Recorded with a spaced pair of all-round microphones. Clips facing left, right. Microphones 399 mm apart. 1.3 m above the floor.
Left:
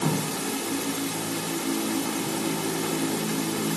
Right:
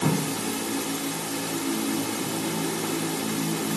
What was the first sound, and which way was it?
Only background noise.